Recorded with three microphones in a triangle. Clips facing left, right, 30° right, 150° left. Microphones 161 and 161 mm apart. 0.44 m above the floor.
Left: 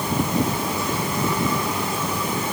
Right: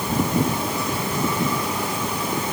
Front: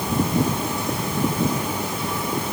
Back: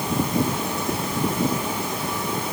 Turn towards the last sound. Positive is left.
No sound to turn to.